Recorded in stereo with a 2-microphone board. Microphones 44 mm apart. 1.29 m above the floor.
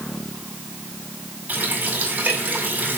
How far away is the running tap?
About 6.5 m.